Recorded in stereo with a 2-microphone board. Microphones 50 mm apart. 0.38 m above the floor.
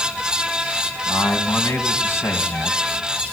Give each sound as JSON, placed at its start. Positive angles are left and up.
{"t": 1.1, "sound": "a man speaking", "side_deg": 55, "distance_m": 3.0}